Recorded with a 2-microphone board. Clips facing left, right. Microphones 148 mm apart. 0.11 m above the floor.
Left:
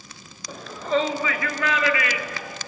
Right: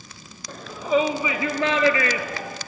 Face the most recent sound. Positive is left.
turn(degrees=-45)  # may be behind; listen again after turning